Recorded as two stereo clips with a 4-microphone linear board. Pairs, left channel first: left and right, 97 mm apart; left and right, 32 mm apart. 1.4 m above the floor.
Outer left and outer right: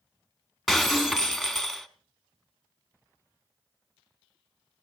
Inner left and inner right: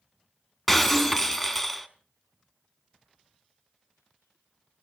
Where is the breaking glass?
Centre (ahead or behind), 1.2 m.